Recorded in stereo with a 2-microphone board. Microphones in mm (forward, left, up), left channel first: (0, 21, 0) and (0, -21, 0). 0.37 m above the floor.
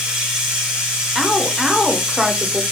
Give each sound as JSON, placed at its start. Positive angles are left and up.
{"t": 0.0, "sound": "running water", "side_deg": -15, "distance_m": 2.5}
{"t": 1.1, "sound": "a woman speaking", "side_deg": -5, "distance_m": 0.8}